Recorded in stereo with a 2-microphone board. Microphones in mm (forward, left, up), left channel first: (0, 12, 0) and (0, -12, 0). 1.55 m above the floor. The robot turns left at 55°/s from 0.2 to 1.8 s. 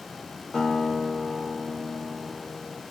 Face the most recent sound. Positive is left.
turn(degrees=65)